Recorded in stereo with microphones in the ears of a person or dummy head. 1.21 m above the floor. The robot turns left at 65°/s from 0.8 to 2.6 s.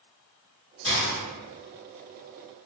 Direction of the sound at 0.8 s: 25° left (ahead or behind).